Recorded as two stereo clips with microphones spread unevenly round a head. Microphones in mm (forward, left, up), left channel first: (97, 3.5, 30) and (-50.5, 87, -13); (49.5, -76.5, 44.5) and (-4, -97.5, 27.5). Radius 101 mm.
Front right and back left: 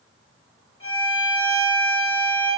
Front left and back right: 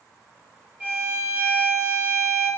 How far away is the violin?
About 0.9 m.